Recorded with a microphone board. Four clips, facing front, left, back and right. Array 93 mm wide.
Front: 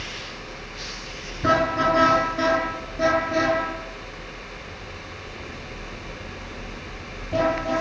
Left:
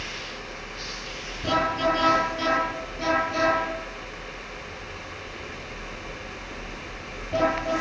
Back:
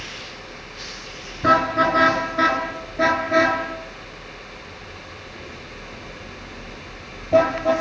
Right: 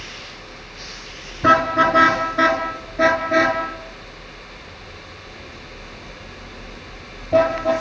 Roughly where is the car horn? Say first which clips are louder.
Right 8 dB, back 3 dB; right.